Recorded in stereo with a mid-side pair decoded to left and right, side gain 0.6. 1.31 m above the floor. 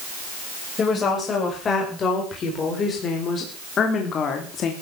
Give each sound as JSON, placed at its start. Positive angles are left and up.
{"t": 0.8, "sound": "a woman speaking", "azimuth_deg": 35, "distance_m": 7.0}